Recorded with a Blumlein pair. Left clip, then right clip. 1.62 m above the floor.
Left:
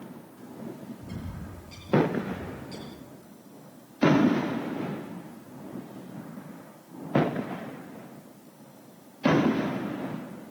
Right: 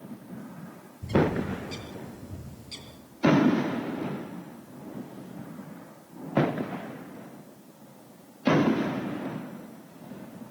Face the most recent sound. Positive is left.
turn(degrees=-70)